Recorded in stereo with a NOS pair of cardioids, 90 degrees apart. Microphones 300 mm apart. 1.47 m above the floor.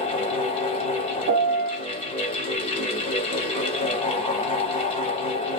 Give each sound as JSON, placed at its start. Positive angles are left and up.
{"t": 0.0, "sound": "a fan", "azimuth_deg": 20, "distance_m": 1.4}
{"t": 1.3, "sound": "a piano", "azimuth_deg": -60, "distance_m": 1.2}